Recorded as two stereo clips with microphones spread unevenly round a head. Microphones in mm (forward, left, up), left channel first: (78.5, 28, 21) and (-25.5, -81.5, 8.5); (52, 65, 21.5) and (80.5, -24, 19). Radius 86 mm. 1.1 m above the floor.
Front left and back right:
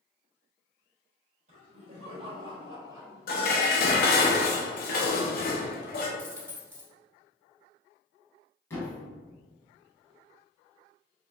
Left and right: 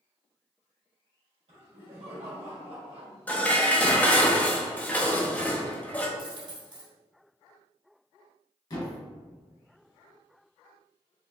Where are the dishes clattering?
35° left, 0.7 m.